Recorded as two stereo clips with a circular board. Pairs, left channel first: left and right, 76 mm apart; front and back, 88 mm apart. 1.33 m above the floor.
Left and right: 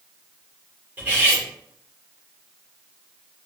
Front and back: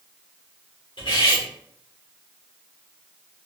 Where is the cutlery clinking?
25° right, 2 m.